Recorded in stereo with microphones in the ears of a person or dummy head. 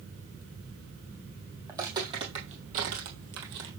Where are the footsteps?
10° right (ahead or behind), 2.5 m; by 3.7 s 55° right (ahead or behind), 2 m.